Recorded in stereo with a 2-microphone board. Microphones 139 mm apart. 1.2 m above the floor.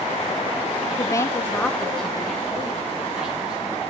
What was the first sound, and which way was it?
A woman speaking, 30° left (ahead or behind).